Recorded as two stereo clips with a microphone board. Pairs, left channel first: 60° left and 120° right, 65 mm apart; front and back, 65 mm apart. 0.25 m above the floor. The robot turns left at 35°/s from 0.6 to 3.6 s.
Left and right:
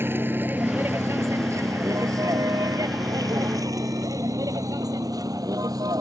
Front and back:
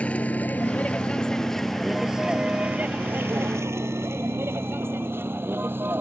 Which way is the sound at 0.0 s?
70° right.